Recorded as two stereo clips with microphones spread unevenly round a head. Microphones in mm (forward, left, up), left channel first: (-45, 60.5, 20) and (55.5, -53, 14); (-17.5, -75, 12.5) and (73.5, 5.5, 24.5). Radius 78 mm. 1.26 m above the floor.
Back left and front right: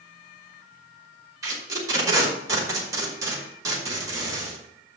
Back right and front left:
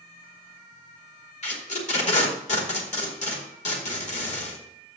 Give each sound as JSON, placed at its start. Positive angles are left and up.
{"t": 1.4, "sound": "tape being pulled", "azimuth_deg": -120, "distance_m": 2.0}